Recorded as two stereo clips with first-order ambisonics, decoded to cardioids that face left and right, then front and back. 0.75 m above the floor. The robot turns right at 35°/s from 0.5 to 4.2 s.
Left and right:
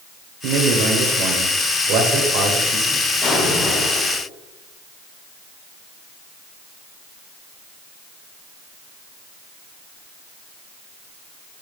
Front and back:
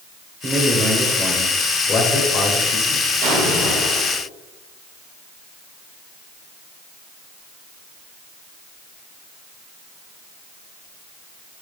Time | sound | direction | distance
0.4 | a man speaking | 115° right | 2.5 m
3.2 | an explosion | 165° left | 4 m